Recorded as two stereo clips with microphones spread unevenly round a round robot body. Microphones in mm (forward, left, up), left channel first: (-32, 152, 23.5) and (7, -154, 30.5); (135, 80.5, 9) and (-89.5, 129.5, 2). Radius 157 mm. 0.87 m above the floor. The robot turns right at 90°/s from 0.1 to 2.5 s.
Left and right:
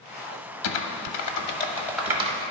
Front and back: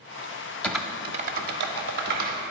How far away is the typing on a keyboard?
About 0.6 m.